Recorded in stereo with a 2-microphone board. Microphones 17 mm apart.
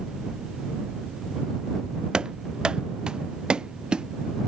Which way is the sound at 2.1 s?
70° right (ahead or behind).